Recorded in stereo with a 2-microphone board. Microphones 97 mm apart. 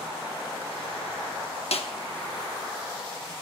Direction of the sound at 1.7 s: 75° left (ahead or behind).